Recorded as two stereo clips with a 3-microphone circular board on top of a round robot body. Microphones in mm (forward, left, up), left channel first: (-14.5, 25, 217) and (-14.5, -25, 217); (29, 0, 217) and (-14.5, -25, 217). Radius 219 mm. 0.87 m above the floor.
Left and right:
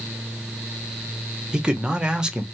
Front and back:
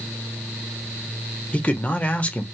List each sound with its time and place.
1.5 s a man speaking: 20° right, 1.0 m